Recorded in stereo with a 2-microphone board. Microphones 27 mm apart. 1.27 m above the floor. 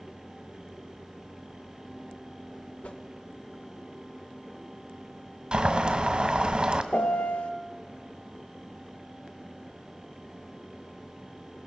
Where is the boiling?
35° right (ahead or behind), 1.8 m.